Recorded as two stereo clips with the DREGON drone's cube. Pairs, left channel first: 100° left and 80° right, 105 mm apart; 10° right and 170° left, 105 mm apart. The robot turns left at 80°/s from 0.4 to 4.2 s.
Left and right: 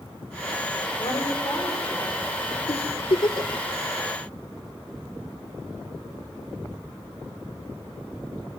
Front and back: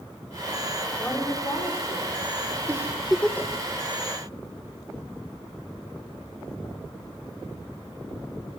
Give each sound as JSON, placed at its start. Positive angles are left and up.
{"t": 1.0, "sound": "a woman speaking", "azimuth_deg": 75, "distance_m": 4.5}
{"t": 2.7, "sound": "a giggle", "azimuth_deg": 115, "distance_m": 1.9}